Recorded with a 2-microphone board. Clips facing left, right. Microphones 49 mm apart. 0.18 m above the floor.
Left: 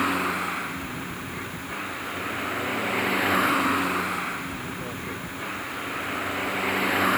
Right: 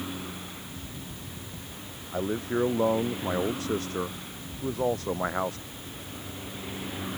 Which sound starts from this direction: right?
A man speaking, at 2.1 s.